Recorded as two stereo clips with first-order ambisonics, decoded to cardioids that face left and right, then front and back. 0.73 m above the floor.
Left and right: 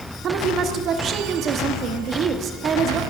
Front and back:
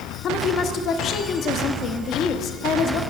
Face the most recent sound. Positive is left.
turn(degrees=-40)